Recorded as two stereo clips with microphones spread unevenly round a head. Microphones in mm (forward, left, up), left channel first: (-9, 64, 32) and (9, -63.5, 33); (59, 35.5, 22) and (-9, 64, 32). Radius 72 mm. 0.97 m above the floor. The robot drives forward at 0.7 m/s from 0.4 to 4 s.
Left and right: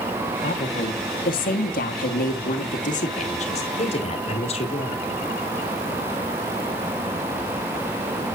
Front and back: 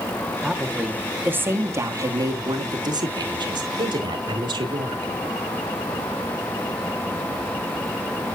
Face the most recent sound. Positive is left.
turn(degrees=145)